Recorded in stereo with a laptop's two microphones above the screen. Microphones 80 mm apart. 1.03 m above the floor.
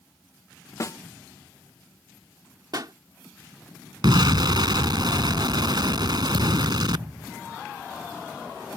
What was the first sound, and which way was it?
A snare drum, 40° left (ahead or behind).